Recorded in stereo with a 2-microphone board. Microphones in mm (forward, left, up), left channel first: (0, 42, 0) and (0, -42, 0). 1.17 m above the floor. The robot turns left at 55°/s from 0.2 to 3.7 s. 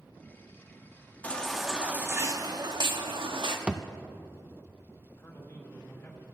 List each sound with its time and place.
1.2 s a baby crying: 20° left, 1.3 m; by 3.6 s 110° right, 1.3 m
3.7 s a thud: 15° right (ahead or behind), 0.5 m; by 3.8 s 10° right (ahead or behind), 0.5 m
5.2 s a man speaking: 25° left (ahead or behind), 2.5 m